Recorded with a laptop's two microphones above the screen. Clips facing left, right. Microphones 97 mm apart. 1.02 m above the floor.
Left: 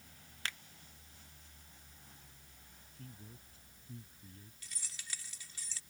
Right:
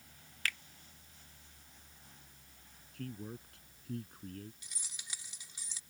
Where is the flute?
I don't hear a flute.